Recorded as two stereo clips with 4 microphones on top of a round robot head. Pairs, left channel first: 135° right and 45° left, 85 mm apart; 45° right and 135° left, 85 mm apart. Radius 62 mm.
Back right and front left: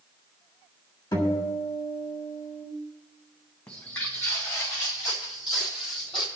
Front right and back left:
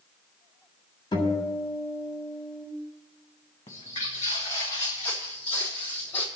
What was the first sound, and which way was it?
A guitar, 90° right.